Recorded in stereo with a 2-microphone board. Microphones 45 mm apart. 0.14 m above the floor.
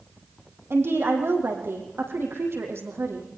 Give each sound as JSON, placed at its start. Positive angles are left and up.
{"t": 0.7, "sound": "a woman speaking", "side_deg": -60, "distance_m": 5.5}